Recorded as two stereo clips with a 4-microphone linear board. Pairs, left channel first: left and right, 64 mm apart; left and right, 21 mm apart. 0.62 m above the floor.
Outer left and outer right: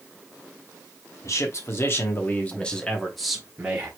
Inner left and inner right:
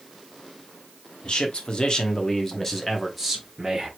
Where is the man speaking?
55° left (ahead or behind), 1.3 m; by 3.9 s 15° right (ahead or behind), 1.4 m.